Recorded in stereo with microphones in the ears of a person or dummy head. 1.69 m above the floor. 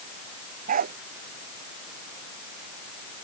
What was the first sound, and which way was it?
A dog barking, 45° right (ahead or behind).